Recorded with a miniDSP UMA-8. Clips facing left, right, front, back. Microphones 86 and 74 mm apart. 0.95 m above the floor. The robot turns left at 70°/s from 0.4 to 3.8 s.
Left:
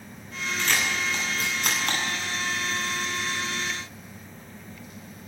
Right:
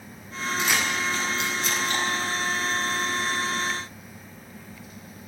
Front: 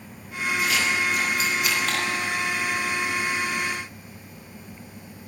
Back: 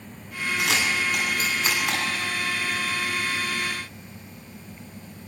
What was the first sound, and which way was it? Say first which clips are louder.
A camera shutter: right 1 dB, even; 165° right.